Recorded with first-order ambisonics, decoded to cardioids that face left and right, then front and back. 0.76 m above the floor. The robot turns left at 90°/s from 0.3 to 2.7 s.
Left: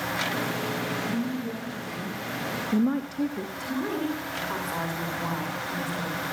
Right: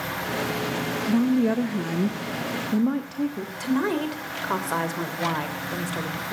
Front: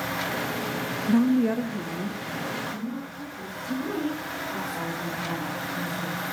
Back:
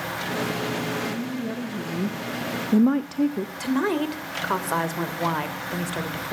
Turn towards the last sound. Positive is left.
turn(degrees=-155)